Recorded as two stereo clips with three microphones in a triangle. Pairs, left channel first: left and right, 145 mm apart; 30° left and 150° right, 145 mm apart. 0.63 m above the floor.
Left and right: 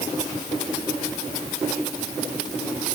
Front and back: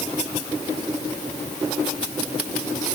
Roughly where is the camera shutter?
No camera shutter in this recording.